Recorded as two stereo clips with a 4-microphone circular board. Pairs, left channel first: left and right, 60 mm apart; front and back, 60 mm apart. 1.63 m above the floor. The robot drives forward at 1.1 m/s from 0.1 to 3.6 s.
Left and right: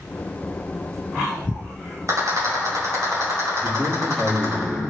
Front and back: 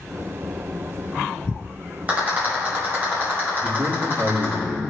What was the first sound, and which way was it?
A rattle, 120° right.